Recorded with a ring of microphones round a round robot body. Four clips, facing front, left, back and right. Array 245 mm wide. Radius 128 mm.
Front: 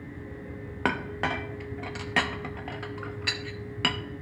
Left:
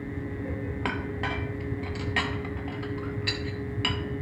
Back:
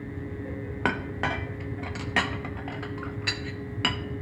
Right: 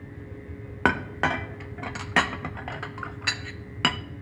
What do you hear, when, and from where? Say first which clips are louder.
0.8 s a clink: right 9 dB, even; 90° right, 0.5 m